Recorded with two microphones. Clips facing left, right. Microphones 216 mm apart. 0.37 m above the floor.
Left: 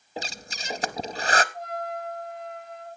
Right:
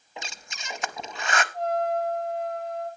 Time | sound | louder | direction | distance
0.2 | breathing | left 6 dB | 35° left (ahead or behind) | 0.6 m
1.5 | a trumpet | right 8 dB | 85° right | 7.5 m